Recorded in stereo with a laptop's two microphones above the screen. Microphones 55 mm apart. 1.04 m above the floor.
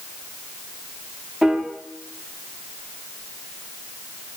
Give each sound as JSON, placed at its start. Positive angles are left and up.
{"t": 1.4, "sound": "a piano", "side_deg": -15, "distance_m": 0.6}